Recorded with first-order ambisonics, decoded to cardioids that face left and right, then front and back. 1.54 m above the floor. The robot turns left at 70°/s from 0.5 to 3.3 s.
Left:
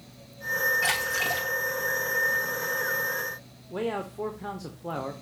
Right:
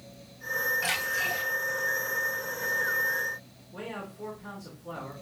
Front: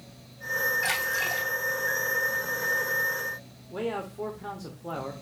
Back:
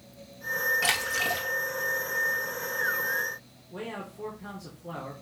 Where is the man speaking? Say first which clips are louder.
Left 8 dB, front 6 dB; 65° left, 0.8 m.